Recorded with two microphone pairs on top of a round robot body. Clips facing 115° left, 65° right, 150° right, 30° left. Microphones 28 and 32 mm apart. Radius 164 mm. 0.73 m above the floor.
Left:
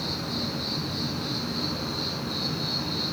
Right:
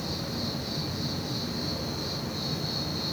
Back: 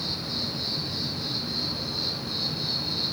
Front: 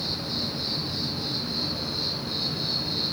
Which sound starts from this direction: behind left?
An insect, at 0.0 s.